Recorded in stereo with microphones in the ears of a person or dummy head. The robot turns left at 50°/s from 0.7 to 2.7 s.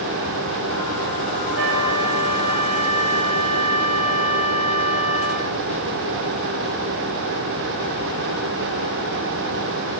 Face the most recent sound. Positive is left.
turn(degrees=-145)